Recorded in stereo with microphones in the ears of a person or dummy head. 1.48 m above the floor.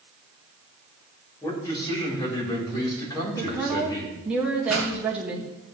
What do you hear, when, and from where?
1.4 s a man speaking: 20° left (ahead or behind), 4 m
3.4 s a woman speaking: 10° right (ahead or behind), 2 m
4.7 s a pop: centre (ahead or behind), 5 m